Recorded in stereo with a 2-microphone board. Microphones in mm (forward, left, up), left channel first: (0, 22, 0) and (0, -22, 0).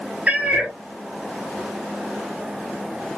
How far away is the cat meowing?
About 2 m.